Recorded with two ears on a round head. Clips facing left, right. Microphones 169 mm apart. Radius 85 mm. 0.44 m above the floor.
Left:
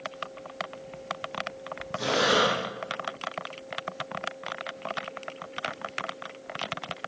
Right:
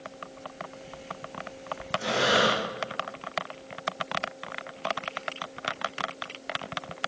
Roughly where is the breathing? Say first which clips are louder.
Left 1 dB; left.